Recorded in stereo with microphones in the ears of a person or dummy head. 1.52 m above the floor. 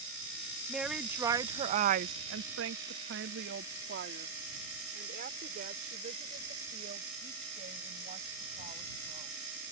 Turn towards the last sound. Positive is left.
turn(degrees=-45)  # may be behind; listen again after turning